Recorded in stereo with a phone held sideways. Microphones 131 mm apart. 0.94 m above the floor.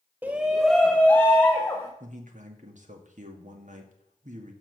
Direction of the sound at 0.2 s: 15° right (ahead or behind).